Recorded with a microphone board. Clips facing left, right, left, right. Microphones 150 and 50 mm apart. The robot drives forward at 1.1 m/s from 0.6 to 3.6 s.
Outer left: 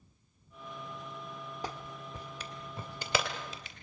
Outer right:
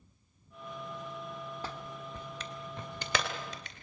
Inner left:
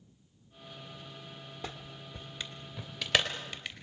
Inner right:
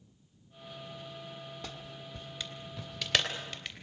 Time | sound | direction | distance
1.6 | a clap | 15° left (ahead or behind) | 1.5 m